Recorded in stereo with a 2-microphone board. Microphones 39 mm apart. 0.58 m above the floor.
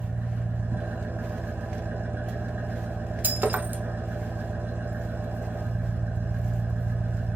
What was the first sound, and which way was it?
An engine running, 75° right (ahead or behind).